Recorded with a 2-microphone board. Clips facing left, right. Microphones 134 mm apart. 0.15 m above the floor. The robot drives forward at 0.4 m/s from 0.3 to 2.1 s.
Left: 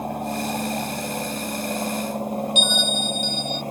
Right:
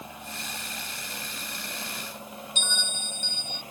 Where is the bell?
15° left (ahead or behind).